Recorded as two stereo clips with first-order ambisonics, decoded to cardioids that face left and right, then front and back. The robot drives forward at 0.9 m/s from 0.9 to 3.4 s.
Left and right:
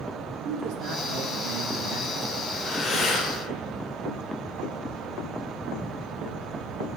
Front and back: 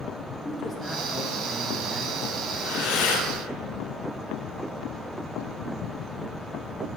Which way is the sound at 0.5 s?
80° right.